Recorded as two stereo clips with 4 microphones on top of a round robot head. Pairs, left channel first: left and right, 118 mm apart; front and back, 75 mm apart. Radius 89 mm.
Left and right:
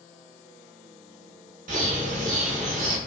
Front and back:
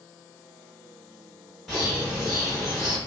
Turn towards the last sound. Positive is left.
turn(degrees=-85)